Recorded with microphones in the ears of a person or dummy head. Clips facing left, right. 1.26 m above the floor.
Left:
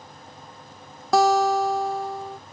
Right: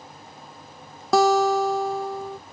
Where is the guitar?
80° right.